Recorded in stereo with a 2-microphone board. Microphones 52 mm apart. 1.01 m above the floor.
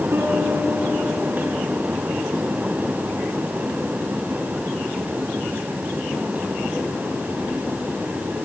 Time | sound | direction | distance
0.1 | a piano | 65° right (ahead or behind) | 3.5 m